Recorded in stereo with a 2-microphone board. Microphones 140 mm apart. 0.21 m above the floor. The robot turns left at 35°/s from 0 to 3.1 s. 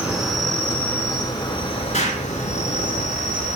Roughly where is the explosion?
Left.